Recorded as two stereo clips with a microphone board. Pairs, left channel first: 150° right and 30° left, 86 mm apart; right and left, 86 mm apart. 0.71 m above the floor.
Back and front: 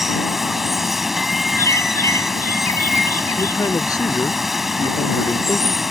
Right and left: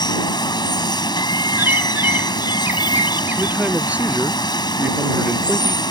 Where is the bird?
155° left.